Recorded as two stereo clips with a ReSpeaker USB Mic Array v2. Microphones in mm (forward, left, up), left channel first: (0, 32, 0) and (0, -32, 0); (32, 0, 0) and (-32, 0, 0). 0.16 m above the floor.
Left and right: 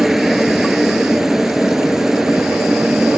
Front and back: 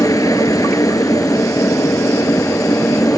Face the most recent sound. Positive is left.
turn(degrees=-5)